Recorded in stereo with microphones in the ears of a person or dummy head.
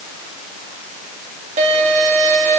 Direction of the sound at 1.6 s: 45° right (ahead or behind).